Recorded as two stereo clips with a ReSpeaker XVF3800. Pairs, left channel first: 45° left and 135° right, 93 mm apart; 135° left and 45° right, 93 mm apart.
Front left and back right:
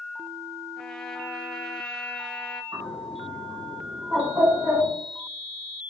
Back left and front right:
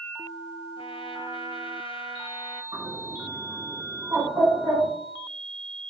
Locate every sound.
0.8 s a trumpet: 130° left, 0.9 m
2.7 s a bird: 85° right, 3 m